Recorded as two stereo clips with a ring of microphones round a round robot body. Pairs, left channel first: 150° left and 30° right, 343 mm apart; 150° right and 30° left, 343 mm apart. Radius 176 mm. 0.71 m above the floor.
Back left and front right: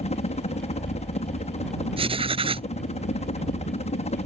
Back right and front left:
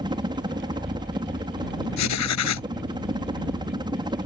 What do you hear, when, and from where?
0.0 s a helicopter: 95° left
2.0 s writing: 105° right